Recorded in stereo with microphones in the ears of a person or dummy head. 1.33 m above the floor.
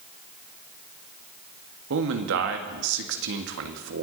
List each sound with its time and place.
1.9 s a man speaking: 75° right (ahead or behind), 1.6 m